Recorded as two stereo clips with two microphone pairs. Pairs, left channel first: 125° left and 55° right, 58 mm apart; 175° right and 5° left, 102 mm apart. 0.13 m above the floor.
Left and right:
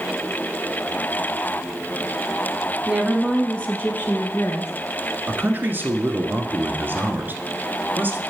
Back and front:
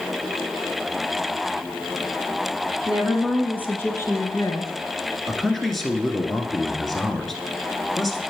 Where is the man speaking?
90° right, 1.4 m.